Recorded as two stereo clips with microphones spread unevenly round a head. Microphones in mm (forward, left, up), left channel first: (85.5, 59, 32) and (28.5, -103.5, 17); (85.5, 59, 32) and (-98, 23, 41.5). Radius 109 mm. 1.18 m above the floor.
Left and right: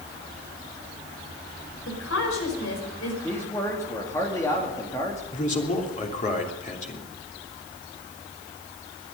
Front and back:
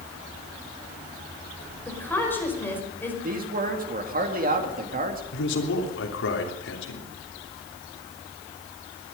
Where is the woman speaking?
90° left, 5 m.